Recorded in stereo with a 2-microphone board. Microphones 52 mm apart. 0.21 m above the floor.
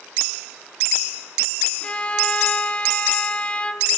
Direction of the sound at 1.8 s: 20° left (ahead or behind).